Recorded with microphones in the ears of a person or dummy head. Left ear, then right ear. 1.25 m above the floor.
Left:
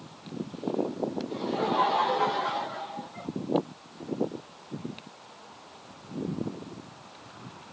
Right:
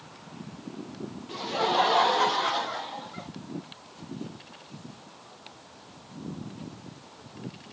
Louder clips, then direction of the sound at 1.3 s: Right 4 dB; 40° right (ahead or behind).